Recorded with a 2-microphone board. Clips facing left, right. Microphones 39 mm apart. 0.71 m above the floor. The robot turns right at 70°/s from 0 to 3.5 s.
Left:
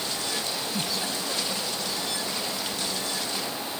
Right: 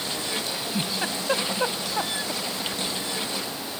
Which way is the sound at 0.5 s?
Centre (ahead or behind).